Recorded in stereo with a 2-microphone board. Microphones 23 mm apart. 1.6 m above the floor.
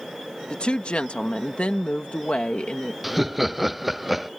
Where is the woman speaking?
60° left (ahead or behind).